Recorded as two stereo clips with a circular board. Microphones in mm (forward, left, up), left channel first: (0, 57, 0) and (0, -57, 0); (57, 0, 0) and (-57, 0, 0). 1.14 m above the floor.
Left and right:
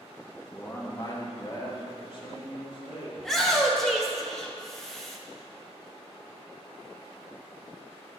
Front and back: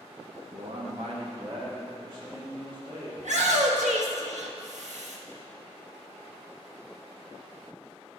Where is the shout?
175° left, 1.3 m.